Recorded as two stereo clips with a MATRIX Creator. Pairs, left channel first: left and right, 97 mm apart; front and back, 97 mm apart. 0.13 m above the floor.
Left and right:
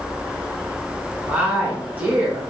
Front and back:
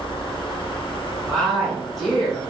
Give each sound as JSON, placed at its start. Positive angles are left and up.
{"t": 1.3, "sound": "a woman speaking", "azimuth_deg": -80, "distance_m": 1.5}